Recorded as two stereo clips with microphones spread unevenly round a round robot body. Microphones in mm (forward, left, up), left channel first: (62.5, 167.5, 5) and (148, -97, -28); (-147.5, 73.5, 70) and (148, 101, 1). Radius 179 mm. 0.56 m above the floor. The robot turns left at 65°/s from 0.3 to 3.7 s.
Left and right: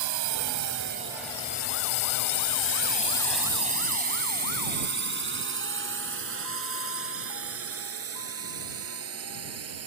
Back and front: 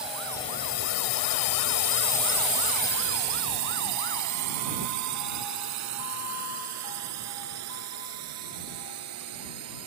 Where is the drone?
75° right; by 9.9 s 40° right.